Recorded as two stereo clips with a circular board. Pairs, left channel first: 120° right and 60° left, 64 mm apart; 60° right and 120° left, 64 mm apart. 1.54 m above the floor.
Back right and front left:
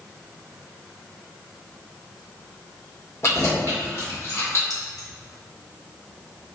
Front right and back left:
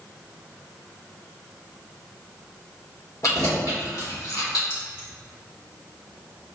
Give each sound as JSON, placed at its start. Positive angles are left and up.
{"t": 3.2, "sound": "keys jangling", "azimuth_deg": -85, "distance_m": 1.8}
{"t": 4.7, "sound": "keys jangling", "azimuth_deg": -110, "distance_m": 1.1}